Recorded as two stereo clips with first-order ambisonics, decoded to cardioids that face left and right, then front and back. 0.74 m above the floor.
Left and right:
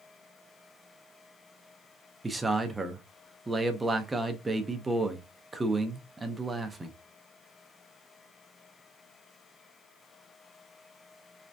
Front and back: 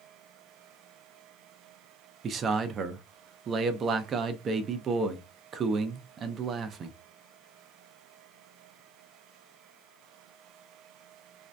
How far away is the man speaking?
About 0.5 m.